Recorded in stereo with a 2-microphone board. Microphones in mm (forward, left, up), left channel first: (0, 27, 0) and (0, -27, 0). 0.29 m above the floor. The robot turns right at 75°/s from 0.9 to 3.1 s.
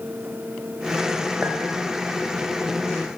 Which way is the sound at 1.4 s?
25° right (ahead or behind).